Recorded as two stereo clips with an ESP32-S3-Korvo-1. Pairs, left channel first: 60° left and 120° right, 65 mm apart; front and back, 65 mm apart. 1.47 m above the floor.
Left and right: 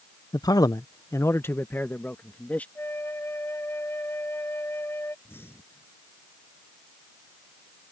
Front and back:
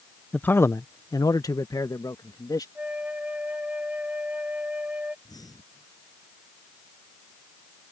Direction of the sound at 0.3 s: 70° left.